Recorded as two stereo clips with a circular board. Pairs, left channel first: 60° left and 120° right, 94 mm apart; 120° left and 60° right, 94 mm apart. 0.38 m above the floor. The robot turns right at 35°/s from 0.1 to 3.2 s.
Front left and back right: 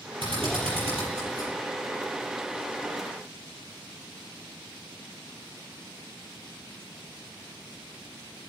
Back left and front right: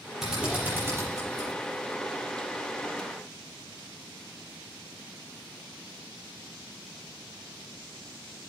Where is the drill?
145° right, 6.5 m; by 1.5 s 100° right, 6.5 m.